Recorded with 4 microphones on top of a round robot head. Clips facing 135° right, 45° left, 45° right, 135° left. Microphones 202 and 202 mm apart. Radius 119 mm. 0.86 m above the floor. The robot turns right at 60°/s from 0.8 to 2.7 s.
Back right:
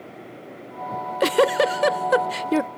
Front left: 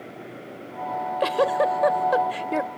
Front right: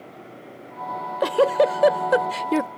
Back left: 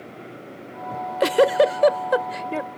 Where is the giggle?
175° left; by 2.7 s 80° right.